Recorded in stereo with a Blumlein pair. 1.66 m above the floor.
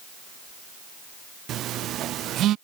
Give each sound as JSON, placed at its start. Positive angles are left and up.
{"t": 1.5, "sound": "a phone buzzing", "azimuth_deg": -30}